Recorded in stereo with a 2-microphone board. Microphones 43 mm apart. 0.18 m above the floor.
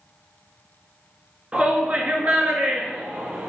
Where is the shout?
30° right (ahead or behind), 1.9 m; by 3.5 s 55° right (ahead or behind), 3 m.